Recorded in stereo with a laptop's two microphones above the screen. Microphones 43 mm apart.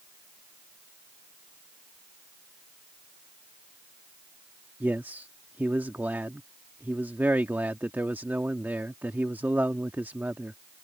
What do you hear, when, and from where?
4.8 s a man speaking: 50° right (ahead or behind)